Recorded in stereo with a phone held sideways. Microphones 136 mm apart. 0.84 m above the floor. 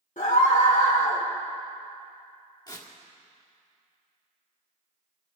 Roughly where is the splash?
I don't hear a splash.